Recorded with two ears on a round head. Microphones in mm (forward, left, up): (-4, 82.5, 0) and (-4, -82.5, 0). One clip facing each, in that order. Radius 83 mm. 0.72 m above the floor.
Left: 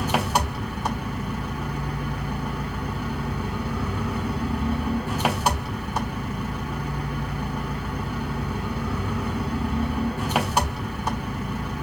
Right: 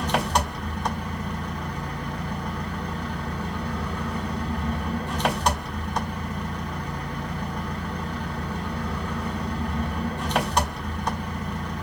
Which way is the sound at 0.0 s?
5° left (ahead or behind).